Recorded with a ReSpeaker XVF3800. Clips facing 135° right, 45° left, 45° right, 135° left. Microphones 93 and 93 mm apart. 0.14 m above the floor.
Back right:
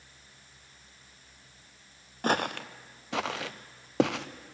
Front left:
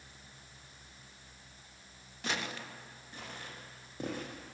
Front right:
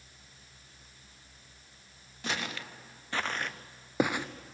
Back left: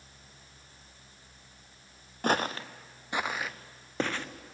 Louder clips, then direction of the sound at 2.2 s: Back right 10 dB, back left 8 dB; straight behind.